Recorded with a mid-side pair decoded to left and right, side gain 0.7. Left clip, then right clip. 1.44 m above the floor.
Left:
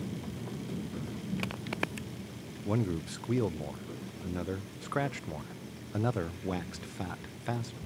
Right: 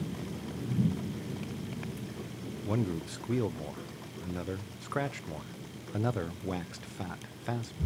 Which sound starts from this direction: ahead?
A man speaking, at 2.6 s.